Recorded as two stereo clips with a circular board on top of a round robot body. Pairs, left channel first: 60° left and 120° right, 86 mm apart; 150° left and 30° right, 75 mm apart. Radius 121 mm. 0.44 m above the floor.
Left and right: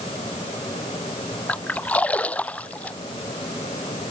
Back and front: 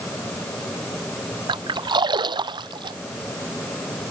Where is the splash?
15° right.